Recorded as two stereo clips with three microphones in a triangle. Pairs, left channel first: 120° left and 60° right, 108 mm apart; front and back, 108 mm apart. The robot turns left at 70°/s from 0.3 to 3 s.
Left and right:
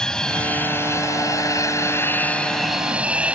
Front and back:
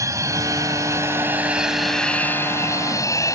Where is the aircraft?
165° right; by 3.4 s 10° left.